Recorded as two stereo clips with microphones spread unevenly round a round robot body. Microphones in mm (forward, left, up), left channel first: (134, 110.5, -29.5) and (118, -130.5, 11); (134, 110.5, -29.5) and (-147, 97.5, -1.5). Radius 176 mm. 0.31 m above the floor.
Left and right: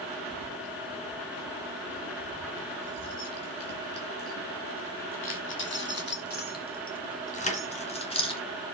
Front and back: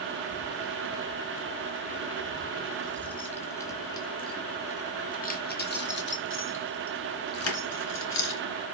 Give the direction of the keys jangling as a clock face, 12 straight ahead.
8 o'clock.